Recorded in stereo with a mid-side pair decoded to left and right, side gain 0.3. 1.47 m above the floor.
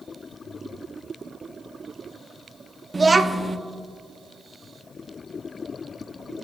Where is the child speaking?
40° right, 0.8 m.